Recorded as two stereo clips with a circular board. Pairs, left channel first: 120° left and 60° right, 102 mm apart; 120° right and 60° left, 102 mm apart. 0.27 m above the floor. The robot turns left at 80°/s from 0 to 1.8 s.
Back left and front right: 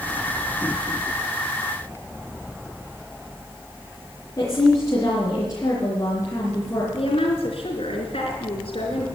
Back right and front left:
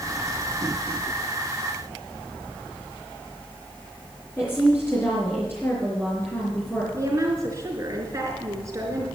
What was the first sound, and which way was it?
A woman speaking, 175° left.